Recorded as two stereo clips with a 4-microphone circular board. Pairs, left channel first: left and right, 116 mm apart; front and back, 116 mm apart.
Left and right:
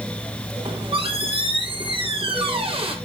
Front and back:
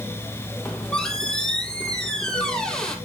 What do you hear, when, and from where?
0.7 s a squeak: 80° right, 1.7 m